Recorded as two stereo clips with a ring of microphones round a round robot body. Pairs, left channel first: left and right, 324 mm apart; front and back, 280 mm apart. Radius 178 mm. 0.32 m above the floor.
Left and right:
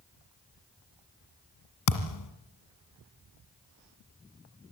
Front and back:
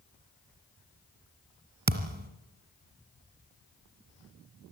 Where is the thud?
125° left, 1.8 m.